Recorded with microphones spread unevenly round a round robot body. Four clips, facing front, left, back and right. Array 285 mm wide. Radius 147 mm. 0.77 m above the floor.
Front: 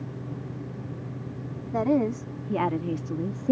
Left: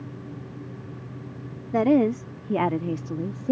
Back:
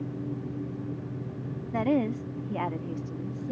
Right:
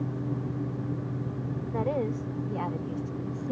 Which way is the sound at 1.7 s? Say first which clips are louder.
Left 10 dB, front 2 dB; 95° left.